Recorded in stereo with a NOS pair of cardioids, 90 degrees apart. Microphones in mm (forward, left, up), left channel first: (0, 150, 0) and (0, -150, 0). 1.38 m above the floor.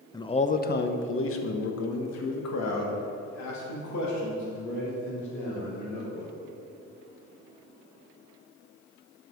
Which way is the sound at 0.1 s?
15° left.